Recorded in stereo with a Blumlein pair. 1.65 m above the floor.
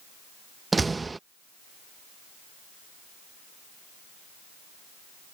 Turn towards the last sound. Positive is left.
turn(degrees=-10)